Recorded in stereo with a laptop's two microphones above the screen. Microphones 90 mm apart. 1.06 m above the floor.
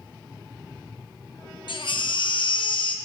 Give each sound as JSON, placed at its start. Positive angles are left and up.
{"t": 1.7, "sound": "a baby crying", "side_deg": 65, "distance_m": 0.5}